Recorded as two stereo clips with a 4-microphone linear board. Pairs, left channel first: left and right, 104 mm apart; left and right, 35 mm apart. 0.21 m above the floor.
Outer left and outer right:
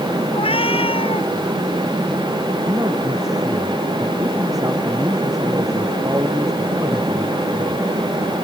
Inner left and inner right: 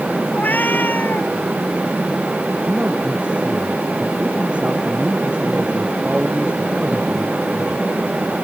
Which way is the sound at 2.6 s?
35° right (ahead or behind).